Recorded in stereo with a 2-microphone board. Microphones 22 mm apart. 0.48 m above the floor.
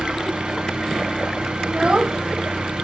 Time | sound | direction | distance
0.0 | an engine running | 40° right (ahead or behind) | 3 m
1.6 | a child speaking | 45° right (ahead or behind) | 0.6 m